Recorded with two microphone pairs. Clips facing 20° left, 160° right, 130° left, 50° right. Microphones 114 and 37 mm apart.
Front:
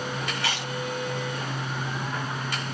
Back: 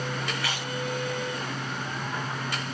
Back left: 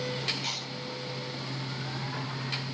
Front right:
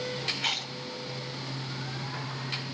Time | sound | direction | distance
0.3 | chewing | 45° right | 3 m